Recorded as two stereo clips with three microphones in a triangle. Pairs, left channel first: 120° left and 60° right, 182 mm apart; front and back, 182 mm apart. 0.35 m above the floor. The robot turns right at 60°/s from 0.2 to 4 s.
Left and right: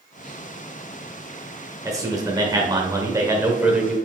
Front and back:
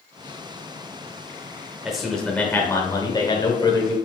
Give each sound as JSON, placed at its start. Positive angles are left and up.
{"t": 1.9, "sound": "a man speaking", "azimuth_deg": -100, "distance_m": 0.8}